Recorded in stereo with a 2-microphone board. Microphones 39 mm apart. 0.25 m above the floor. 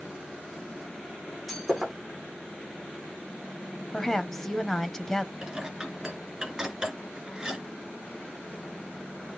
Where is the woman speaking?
10° left (ahead or behind), 1.1 m.